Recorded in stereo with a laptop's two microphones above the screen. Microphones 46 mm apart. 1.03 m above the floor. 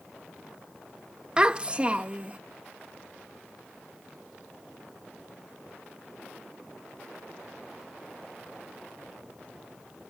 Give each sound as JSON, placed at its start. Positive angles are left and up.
{"t": 1.4, "sound": "a child speaking", "side_deg": -20}